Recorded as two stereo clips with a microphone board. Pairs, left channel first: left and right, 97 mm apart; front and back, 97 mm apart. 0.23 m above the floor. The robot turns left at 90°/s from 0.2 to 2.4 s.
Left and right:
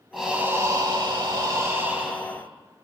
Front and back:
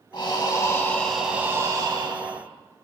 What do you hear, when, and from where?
0.1 s breathing: 5° right, 0.6 m; by 2.4 s 155° left, 0.6 m